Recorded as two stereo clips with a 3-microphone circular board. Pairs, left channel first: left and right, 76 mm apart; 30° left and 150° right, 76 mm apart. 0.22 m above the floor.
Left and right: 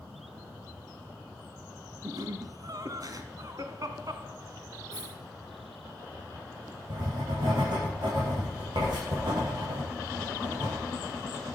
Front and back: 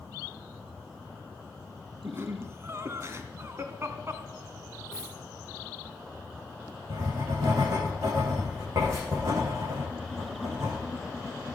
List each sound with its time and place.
2.0 s laughter: 105° right, 1.8 m
4.9 s a dropped coin: 70° right, 6 m
6.9 s writing: 105° right, 10 m